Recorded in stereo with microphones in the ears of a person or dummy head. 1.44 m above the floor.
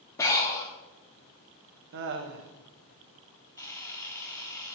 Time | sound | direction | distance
0.2 | breathing | 15° left (ahead or behind) | 1.4 m
1.9 | laughter | 55° right (ahead or behind) | 0.9 m
3.6 | a camera shutter | 15° left (ahead or behind) | 0.9 m